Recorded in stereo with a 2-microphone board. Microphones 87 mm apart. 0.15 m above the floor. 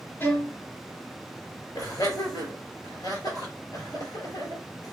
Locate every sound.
0.2 s a violin: 25° left (ahead or behind), 1.6 m
1.8 s laughter: 45° left (ahead or behind), 3 m